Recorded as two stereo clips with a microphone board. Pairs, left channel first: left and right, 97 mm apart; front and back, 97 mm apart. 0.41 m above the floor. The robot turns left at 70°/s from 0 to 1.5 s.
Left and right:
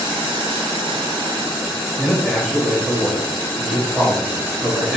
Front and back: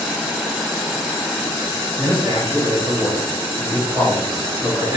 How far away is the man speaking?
About 0.8 m.